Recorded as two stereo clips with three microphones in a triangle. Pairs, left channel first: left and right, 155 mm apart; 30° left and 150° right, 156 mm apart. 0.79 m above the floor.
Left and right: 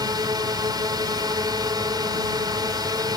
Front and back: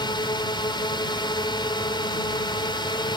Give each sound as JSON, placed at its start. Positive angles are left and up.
{"t": 0.0, "sound": "a drone", "azimuth_deg": -25}